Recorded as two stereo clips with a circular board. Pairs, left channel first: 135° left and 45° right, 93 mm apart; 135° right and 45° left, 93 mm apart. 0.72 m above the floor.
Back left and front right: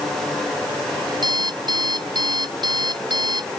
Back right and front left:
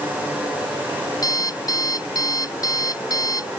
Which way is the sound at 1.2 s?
85° right.